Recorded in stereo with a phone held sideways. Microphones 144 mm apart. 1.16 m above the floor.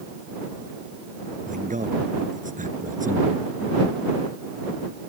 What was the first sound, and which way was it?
A man speaking, 65° right (ahead or behind).